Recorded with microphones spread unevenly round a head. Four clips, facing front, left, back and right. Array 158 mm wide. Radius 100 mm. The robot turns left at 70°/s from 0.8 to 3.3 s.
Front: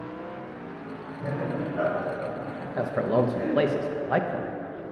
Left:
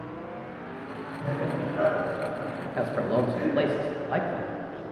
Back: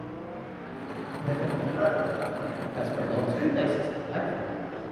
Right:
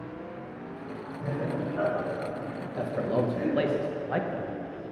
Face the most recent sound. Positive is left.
turn(degrees=25)